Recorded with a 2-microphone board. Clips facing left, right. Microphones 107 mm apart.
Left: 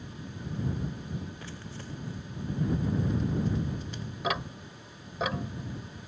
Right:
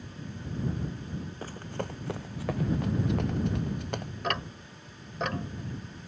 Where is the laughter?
I don't hear laughter.